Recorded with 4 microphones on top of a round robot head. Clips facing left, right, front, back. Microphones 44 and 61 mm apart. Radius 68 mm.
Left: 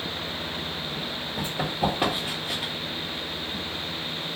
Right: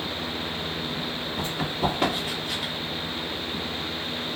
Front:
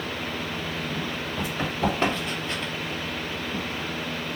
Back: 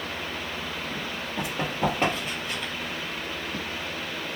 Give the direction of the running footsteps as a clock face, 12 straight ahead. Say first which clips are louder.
Left 1 dB, even; 7 o'clock.